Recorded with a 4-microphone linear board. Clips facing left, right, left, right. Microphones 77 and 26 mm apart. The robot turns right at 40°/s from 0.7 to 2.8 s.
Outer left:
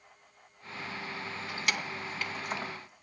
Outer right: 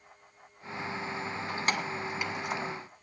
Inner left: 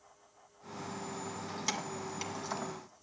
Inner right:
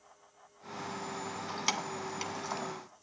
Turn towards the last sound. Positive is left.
turn(degrees=5)  # may be behind; listen again after turning